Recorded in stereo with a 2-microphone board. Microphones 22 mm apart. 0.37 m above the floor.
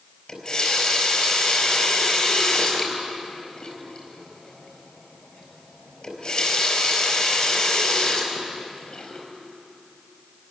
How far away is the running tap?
About 4.5 m.